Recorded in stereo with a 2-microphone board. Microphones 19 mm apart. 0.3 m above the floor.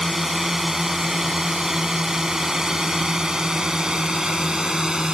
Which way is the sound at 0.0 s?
10° right (ahead or behind).